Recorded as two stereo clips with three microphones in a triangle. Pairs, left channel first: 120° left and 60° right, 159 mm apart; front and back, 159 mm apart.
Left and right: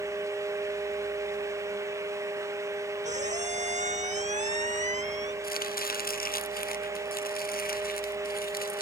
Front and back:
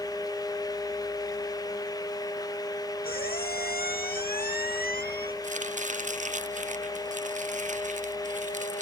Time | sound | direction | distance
3.0 | a squeak | 20° right | ?
5.4 | chopping | 140° left | ?